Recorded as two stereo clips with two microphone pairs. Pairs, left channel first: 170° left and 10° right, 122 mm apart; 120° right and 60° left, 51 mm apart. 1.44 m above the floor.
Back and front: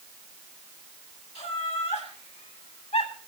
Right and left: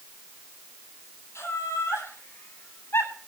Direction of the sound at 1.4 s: 155° right.